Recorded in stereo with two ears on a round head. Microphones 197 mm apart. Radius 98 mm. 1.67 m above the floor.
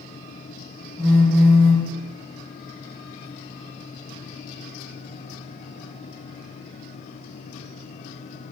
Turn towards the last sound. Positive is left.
turn(degrees=5)  # may be behind; listen again after turning